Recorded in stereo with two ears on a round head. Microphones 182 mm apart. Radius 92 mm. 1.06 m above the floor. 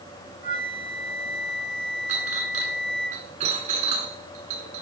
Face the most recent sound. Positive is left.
turn(degrees=-35)  # may be behind; listen again after turning